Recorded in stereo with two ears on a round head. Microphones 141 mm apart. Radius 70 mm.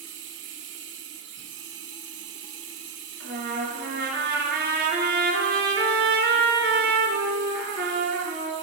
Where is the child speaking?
I don't hear a child speaking.